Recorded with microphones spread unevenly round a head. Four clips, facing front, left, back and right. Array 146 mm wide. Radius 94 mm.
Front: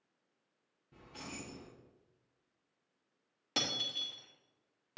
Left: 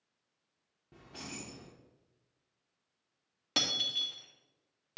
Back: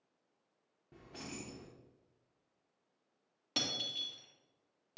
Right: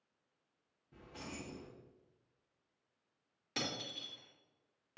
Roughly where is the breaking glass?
Ahead left.